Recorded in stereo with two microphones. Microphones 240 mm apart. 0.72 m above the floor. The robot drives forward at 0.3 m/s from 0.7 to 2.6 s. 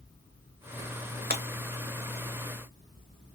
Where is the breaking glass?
35° right (ahead or behind), 1.2 m.